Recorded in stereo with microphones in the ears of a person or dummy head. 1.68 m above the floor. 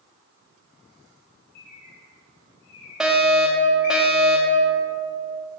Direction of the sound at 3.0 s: Centre (ahead or behind).